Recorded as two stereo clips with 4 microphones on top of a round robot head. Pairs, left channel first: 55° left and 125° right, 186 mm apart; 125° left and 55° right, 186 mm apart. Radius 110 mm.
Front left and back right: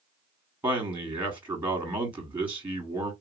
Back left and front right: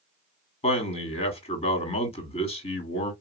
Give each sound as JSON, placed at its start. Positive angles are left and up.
{"t": 0.6, "sound": "a man speaking", "azimuth_deg": 155, "distance_m": 1.6}